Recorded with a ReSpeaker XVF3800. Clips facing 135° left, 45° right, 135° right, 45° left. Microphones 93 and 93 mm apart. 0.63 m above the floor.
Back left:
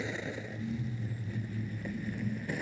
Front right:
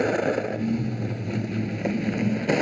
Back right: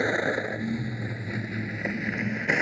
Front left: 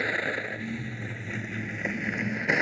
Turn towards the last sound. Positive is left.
turn(degrees=-45)